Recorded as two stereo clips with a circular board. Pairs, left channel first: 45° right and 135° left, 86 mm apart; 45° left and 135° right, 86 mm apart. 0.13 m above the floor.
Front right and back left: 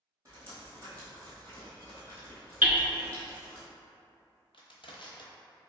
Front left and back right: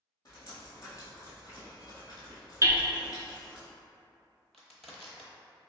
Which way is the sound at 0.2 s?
85° left.